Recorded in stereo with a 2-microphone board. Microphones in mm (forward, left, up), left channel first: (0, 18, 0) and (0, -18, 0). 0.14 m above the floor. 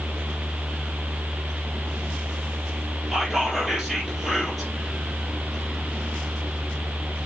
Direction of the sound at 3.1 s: 5° right (ahead or behind).